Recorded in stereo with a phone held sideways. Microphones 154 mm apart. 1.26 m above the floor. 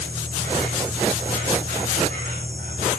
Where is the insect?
50° right (ahead or behind), 9.5 m.